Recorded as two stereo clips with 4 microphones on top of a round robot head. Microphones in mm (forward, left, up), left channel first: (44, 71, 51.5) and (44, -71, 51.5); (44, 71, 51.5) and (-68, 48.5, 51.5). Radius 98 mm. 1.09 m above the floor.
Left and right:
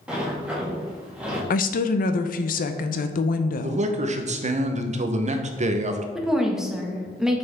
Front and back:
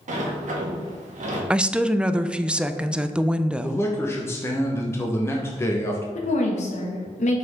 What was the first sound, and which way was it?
A sliding door, 175° right.